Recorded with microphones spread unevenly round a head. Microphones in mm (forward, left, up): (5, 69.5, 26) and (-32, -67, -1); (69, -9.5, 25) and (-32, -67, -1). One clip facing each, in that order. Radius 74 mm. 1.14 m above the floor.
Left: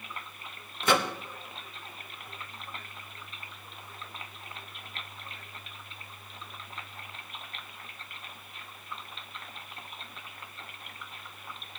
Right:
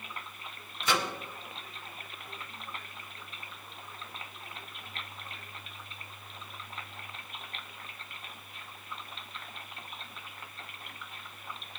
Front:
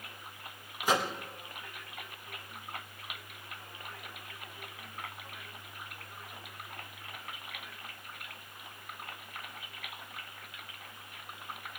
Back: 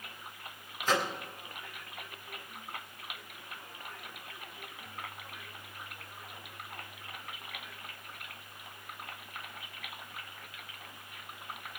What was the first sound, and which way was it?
A microwave, 115° left.